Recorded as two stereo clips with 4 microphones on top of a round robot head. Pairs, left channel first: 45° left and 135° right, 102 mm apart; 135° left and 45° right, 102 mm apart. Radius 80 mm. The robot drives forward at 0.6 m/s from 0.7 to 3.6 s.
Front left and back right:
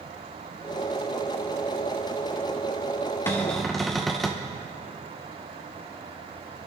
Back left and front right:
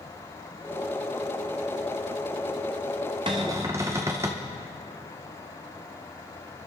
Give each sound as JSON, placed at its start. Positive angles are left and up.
{"t": 3.3, "sound": "a cupboard door", "azimuth_deg": -20, "distance_m": 0.7}